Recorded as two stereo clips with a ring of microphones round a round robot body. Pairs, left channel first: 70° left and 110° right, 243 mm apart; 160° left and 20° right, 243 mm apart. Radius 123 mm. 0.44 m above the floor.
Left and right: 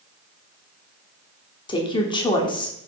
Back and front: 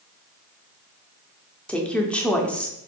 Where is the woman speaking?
80° left, 0.8 m.